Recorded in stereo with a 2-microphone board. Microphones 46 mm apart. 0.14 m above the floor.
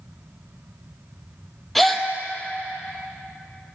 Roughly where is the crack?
I don't hear a crack.